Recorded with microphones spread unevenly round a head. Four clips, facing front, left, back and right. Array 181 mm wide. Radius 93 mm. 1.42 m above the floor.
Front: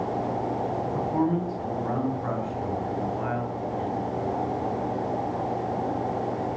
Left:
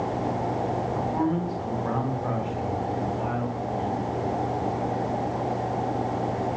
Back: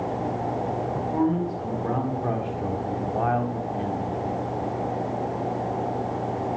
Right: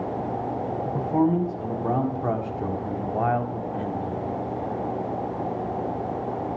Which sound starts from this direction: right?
A man speaking, at 0.8 s.